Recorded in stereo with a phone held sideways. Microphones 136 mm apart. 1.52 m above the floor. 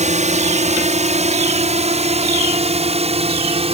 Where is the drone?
60° right (ahead or behind); by 3.7 s 50° right (ahead or behind).